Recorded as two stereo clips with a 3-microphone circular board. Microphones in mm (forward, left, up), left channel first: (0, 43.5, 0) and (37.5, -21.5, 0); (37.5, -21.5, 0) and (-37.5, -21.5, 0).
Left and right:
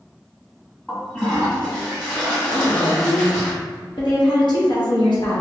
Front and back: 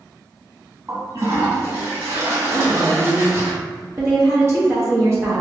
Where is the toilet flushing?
160° right, 1.6 m.